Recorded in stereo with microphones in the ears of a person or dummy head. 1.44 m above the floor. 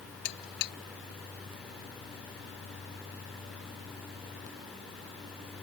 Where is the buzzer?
65° left (ahead or behind).